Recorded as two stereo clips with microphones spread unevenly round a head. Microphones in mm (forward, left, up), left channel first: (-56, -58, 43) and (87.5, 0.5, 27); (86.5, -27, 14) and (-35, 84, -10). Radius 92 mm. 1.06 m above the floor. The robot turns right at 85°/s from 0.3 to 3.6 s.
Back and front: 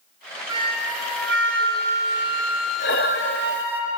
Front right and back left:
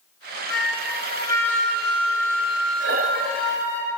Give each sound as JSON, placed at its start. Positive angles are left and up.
{"t": 0.5, "sound": "a flute", "azimuth_deg": -50, "distance_m": 4.5}
{"t": 2.8, "sound": "breathing", "azimuth_deg": 170, "distance_m": 0.6}